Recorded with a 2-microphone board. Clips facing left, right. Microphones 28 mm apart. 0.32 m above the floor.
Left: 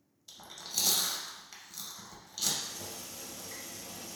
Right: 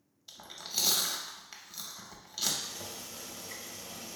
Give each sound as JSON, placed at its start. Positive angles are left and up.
{"t": 0.3, "sound": "chewing", "side_deg": -20, "distance_m": 0.5}
{"t": 2.6, "sound": "boiling", "side_deg": -30, "distance_m": 0.6}